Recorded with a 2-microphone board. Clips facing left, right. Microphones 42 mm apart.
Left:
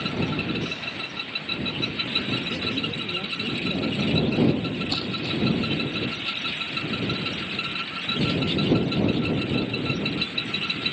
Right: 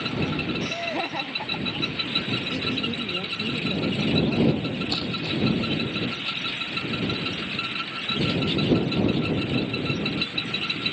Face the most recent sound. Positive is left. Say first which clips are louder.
# even
turn(degrees=-15)  # may be behind; listen again after turning